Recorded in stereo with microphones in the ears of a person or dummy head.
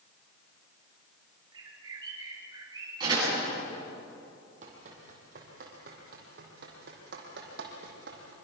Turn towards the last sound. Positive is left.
turn(degrees=-65)  # may be behind; listen again after turning